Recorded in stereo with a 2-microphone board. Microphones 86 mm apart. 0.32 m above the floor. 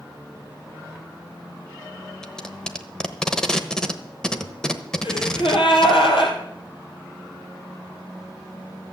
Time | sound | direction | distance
2.2 | tape being pulled | 5° left (ahead or behind) | 1.0 m
5.0 | a gasp | 90° left | 3 m